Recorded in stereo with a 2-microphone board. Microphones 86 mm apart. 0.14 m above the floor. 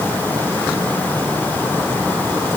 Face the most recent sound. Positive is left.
No sound to turn to.